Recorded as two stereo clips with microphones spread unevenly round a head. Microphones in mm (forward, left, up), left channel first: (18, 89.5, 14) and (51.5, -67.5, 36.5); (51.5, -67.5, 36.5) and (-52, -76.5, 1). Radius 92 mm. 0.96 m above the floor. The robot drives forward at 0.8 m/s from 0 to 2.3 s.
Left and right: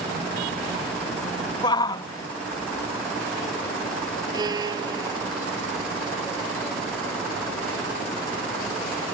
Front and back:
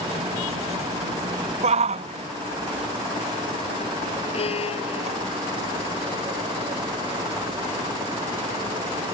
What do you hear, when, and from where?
1.6 s a shout: 170° left; by 5.2 s 175° left
4.3 s a violin: 15° right